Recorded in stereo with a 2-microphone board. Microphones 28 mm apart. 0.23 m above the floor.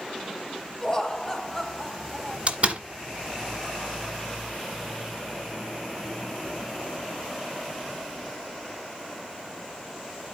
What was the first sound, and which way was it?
Laughter, 25° left (ahead or behind).